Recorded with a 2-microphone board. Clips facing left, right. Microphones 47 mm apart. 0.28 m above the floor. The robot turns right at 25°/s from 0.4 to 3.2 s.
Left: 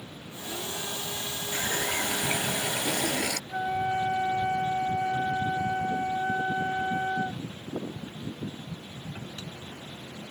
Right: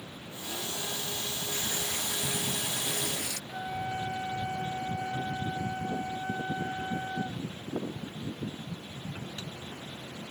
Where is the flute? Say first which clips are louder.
Left 6 dB; 35° left (ahead or behind).